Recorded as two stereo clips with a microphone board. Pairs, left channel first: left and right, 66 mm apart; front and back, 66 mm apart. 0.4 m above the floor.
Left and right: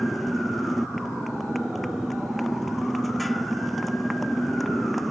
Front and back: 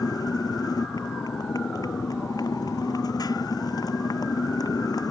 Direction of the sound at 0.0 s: Straight ahead.